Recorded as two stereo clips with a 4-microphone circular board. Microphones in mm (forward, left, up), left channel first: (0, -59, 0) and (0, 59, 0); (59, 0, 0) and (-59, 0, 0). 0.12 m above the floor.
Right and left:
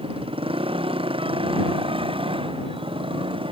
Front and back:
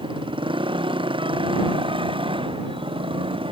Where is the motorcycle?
135° left.